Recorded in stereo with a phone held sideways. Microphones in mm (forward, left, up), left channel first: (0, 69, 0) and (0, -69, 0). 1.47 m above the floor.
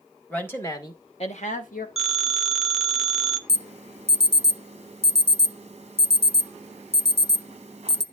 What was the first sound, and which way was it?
A woman speaking, 10° left (ahead or behind).